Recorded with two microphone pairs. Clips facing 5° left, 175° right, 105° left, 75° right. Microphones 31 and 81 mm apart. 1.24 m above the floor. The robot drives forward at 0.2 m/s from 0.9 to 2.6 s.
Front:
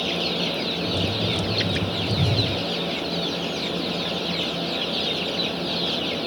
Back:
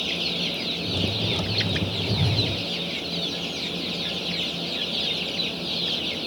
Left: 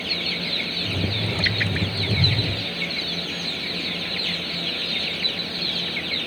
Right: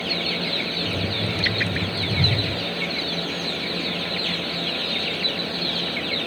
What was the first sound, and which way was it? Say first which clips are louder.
A whoosh: front 1 dB, right 1 dB; 135° right.